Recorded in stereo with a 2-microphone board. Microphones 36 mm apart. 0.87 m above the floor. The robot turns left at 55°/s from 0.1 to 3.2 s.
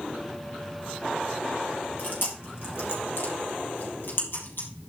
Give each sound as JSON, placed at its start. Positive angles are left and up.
{"t": 2.0, "sound": "chewing", "side_deg": 45, "distance_m": 4.0}